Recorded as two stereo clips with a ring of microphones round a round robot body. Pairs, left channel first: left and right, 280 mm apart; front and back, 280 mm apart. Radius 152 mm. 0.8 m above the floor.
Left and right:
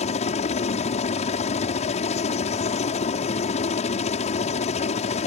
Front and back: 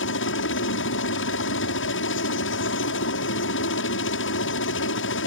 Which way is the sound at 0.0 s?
30° left.